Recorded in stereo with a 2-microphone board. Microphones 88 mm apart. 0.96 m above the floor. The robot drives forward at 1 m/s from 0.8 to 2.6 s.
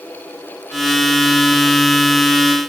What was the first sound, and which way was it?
Only background noise.